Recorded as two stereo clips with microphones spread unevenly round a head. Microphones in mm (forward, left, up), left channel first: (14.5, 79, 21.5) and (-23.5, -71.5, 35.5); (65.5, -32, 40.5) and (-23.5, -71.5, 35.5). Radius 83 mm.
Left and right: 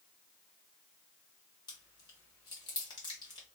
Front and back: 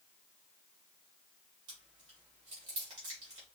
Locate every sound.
1.7 s chewing: 140° left, 1.4 m